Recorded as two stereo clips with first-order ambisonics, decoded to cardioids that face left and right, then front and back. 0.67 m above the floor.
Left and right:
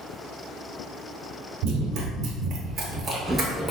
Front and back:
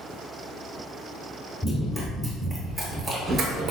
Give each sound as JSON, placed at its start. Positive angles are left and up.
{"t": 1.6, "sound": "running footsteps", "azimuth_deg": -75, "distance_m": 1.1}